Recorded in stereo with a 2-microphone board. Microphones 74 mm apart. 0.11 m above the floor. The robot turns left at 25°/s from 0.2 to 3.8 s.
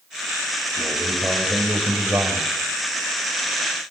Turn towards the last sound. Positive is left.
turn(degrees=-80)